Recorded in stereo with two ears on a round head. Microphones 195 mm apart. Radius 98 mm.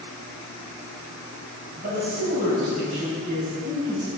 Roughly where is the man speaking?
Right.